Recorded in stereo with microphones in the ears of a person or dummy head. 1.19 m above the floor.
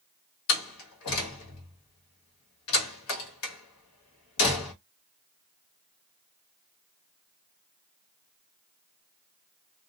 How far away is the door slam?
About 1.4 m.